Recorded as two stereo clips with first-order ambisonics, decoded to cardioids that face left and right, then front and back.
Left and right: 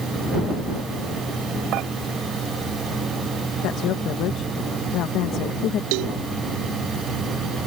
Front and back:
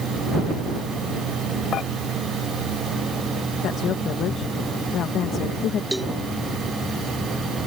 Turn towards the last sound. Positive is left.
turn(degrees=-95)